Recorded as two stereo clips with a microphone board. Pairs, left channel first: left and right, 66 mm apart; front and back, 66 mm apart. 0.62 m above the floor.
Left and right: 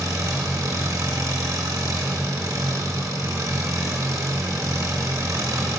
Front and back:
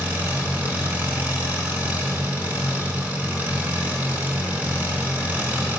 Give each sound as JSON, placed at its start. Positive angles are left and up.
{"t": 0.0, "sound": "an engine running", "azimuth_deg": -115, "distance_m": 3.5}